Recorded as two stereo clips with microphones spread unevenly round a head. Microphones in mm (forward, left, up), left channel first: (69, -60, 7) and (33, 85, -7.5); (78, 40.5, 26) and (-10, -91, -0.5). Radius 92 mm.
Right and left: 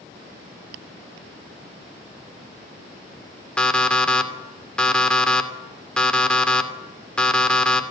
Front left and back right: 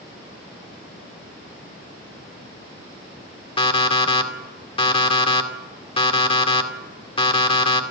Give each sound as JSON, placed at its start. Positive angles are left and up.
{"t": 3.6, "sound": "an alarm clock", "azimuth_deg": 5, "distance_m": 2.5}